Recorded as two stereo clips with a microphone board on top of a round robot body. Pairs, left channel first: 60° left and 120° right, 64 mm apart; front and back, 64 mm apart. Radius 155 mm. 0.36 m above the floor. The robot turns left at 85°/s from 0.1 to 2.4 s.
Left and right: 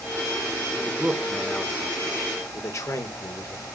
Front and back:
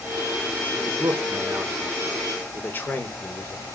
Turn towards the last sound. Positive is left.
turn(degrees=50)